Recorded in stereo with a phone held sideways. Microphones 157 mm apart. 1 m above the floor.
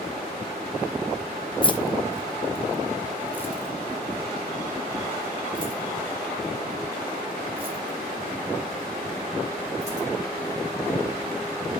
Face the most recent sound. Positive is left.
turn(degrees=-40)  # may be behind; listen again after turning